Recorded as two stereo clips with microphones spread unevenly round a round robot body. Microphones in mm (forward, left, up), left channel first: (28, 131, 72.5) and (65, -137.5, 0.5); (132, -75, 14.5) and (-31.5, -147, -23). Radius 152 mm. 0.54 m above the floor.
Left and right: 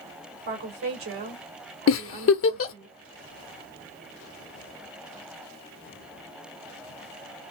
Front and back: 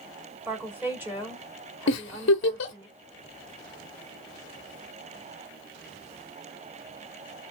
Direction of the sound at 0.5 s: 85° right.